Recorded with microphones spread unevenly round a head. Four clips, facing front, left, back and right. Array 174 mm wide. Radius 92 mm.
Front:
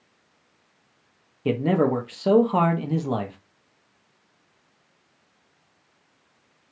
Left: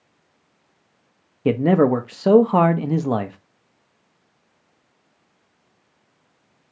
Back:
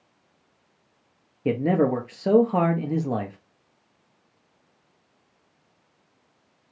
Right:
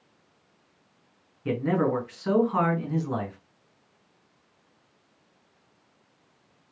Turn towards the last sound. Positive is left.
turn(degrees=95)